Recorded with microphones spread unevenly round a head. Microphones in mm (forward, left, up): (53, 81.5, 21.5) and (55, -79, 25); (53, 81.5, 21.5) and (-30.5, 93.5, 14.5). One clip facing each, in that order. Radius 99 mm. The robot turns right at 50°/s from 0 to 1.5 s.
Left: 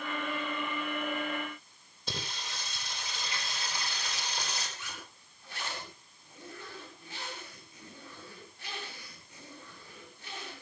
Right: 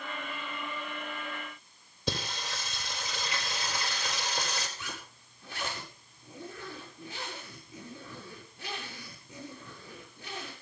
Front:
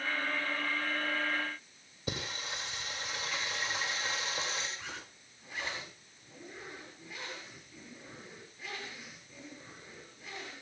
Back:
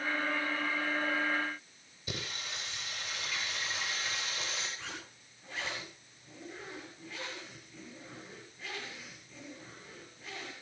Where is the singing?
75° right, 4 m.